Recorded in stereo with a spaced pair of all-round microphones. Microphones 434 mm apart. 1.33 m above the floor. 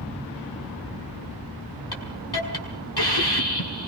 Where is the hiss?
60° left (ahead or behind), 5 m.